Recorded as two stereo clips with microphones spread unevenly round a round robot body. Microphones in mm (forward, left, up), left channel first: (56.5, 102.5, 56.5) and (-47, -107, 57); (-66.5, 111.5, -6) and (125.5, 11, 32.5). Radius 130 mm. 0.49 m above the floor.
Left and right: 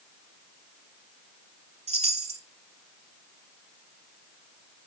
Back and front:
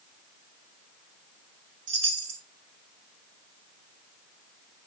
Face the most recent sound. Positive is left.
turn(degrees=-50)